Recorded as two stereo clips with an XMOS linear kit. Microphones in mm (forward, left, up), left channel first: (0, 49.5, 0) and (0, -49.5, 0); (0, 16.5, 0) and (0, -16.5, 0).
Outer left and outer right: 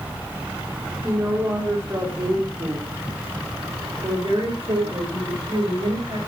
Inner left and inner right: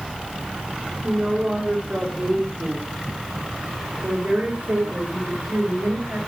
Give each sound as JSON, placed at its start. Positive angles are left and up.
{"t": 1.0, "sound": "a woman speaking", "side_deg": -20, "distance_m": 4.0}